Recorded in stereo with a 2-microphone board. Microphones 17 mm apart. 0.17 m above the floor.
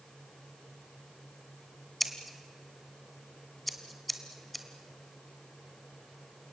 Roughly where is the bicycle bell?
I don't hear a bicycle bell.